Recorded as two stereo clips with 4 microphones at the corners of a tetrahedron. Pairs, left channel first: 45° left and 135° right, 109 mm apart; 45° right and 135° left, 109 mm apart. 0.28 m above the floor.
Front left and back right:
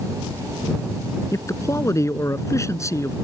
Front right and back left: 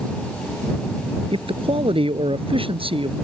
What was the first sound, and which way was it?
A man speaking, 105° left.